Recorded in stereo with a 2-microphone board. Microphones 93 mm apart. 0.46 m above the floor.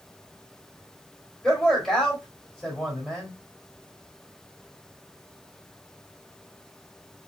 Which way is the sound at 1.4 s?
5° left (ahead or behind).